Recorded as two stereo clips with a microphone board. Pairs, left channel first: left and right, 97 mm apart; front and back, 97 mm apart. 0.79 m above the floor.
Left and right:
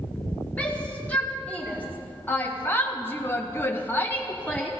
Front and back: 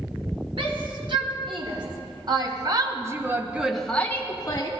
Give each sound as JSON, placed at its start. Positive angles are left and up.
{"t": 0.6, "sound": "a shout", "azimuth_deg": 165, "distance_m": 3.0}